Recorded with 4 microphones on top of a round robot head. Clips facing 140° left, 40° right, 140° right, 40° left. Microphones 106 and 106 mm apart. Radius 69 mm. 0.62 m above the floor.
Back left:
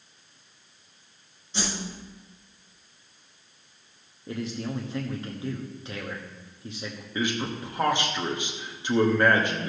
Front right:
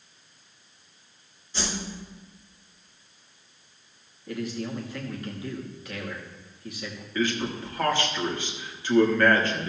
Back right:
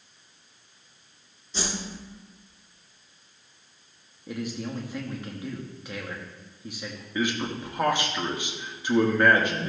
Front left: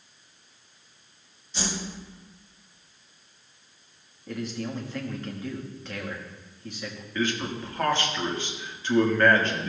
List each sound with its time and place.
1.5 s a whoosh: 150° right, 4 m
4.3 s a man speaking: 155° left, 1.2 m
7.2 s a man speaking: 170° left, 1.2 m